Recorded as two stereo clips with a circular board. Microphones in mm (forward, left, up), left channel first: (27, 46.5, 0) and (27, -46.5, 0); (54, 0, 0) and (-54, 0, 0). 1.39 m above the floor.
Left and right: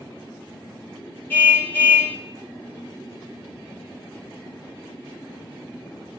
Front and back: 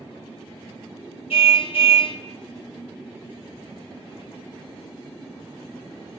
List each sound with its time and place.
1.3 s a car horn: 20° left, 3 m